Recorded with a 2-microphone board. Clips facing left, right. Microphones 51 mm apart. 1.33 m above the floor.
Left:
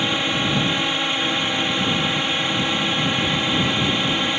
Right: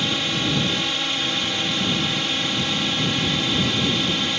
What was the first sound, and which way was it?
A drone, 20° left (ahead or behind).